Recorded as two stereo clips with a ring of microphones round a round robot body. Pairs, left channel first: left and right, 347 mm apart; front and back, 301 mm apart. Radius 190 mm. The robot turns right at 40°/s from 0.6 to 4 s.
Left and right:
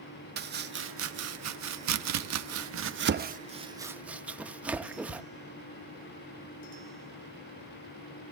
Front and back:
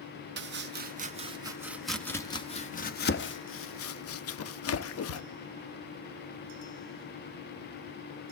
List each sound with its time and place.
0.4 s chopping: 140° right, 0.7 m; by 5.2 s 5° right, 0.7 m